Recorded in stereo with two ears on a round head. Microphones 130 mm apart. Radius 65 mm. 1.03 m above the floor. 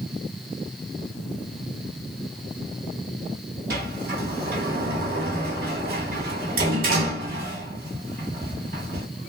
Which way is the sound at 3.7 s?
65° right (ahead or behind).